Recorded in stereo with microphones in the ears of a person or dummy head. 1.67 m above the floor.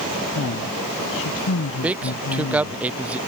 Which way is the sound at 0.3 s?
80° left.